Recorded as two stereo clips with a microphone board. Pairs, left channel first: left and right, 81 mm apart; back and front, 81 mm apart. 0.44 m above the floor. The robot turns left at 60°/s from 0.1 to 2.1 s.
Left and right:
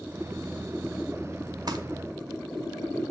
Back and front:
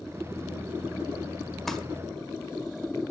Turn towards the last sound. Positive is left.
turn(degrees=-115)